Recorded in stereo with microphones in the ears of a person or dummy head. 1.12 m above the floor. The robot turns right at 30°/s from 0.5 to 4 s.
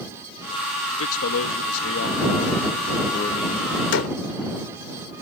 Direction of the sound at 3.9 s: 80° left.